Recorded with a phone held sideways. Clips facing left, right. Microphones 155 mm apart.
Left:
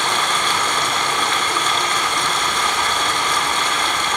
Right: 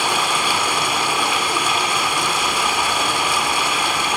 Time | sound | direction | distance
0.0 | running water | 10° right (ahead or behind) | 2.0 m